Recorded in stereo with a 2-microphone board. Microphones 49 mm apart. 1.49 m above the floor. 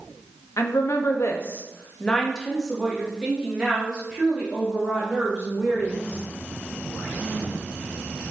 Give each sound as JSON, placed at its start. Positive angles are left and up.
{"t": 0.6, "sound": "a woman speaking", "side_deg": 90, "distance_m": 0.7}